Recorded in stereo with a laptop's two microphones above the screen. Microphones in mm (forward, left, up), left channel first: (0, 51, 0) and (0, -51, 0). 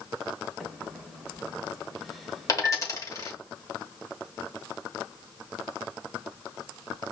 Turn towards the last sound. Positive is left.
turn(degrees=35)  # may be behind; listen again after turning